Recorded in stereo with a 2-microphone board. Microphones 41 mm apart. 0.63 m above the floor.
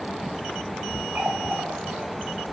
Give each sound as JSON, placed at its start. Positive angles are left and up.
{"t": 1.1, "sound": "a running tap", "side_deg": -50, "distance_m": 2.0}